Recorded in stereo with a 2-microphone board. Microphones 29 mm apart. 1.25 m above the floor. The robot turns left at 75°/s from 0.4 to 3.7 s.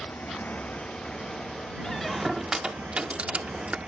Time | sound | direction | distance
0.0 | a motorcycle | 70° left (ahead or behind) | ?
1.8 | a squeak | 25° left (ahead or behind) | ?